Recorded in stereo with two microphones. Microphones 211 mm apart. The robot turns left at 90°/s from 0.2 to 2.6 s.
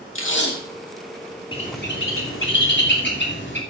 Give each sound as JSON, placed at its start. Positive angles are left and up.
{"t": 0.1, "sound": "tape being pulled", "azimuth_deg": 75, "distance_m": 2.0}
{"t": 1.5, "sound": "a bird", "side_deg": 25, "distance_m": 2.5}